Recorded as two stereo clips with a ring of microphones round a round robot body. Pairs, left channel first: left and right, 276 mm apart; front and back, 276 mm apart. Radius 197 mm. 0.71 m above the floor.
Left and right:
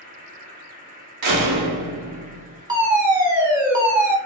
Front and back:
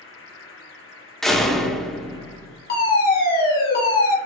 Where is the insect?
35° right, 1.2 m.